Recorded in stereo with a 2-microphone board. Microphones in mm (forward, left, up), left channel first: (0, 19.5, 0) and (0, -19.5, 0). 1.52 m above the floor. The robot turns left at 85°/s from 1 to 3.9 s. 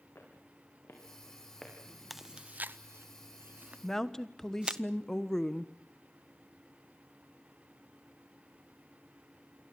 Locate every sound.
0.1 s footsteps: 65° left (ahead or behind), 7 m; by 1.7 s 15° left (ahead or behind), 6 m
2.1 s chewing: centre (ahead or behind), 0.7 m; by 4.8 s 25° right (ahead or behind), 0.7 m
3.8 s a woman speaking: 20° left (ahead or behind), 1.2 m; by 5.7 s 15° left (ahead or behind), 1.2 m